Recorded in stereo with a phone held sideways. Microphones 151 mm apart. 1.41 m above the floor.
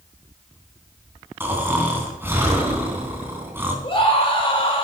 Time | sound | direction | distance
1.4 | snoring | 15° right (ahead or behind) | 3.5 m
3.8 | a scream | 40° left (ahead or behind) | 6 m